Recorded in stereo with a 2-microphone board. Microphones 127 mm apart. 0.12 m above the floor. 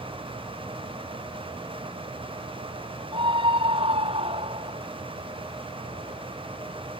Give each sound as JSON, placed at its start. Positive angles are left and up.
{"t": 3.1, "sound": "a scream", "side_deg": -40}